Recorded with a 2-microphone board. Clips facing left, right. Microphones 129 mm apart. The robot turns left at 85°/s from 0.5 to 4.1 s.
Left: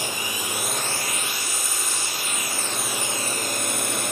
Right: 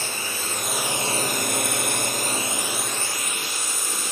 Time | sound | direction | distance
0.0 | a drone | 15° left | ?